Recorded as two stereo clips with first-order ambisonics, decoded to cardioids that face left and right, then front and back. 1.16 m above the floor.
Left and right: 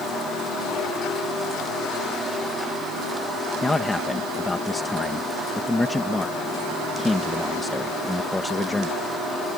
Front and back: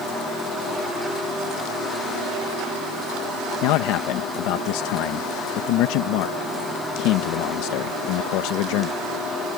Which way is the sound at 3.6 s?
10° left.